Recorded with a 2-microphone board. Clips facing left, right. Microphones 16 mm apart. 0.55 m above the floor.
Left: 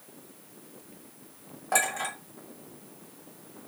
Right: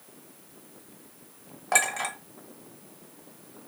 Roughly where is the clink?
Right.